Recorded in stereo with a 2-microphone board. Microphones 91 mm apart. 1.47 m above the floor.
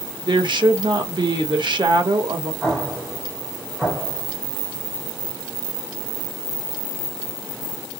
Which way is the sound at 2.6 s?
Centre (ahead or behind).